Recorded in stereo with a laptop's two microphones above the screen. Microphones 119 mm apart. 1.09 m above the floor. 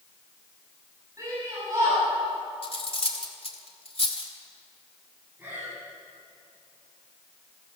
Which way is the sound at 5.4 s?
15° right (ahead or behind).